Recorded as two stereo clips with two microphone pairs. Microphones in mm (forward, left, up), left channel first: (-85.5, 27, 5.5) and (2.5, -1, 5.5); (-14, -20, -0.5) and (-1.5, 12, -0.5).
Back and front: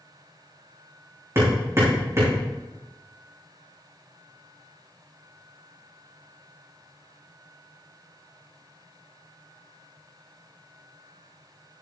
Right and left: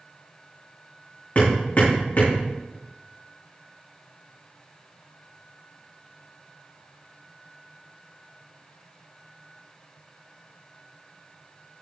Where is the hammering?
75° right, 5.5 m.